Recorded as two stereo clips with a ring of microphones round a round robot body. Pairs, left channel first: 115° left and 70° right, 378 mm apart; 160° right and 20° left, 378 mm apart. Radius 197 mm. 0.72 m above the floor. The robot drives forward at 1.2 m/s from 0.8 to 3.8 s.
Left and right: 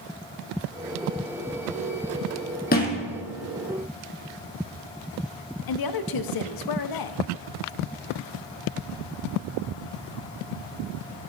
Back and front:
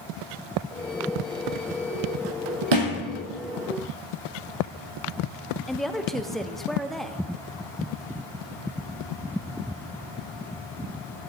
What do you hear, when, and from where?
2.7 s a thud: 45° left, 2.5 m; by 3.0 s 50° left, 2.5 m
5.7 s a woman speaking: 115° left, 0.8 m